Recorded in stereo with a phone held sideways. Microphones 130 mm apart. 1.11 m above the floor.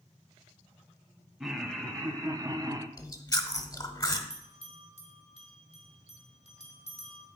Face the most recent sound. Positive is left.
turn(degrees=50)  # may be behind; listen again after turning